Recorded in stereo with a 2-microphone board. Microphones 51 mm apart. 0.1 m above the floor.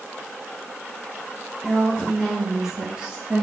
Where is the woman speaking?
15° left (ahead or behind), 1.4 m; by 3.4 s 30° right (ahead or behind), 1.7 m.